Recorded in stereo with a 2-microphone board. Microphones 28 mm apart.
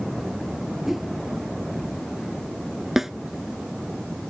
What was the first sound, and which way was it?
A whoosh, 10° right (ahead or behind).